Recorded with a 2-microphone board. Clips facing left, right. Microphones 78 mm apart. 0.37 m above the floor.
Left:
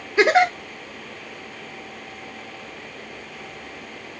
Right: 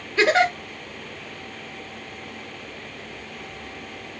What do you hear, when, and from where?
0.2 s a giggle: 15° left (ahead or behind), 1.0 m